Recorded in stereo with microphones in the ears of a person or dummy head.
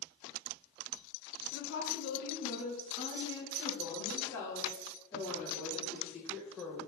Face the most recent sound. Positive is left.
turn(degrees=10)  # may be behind; listen again after turning